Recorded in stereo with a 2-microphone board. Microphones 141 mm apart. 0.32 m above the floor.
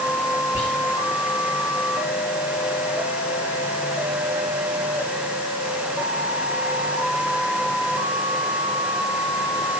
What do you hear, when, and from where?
0.5 s whispering: 15° right (ahead or behind), 6 m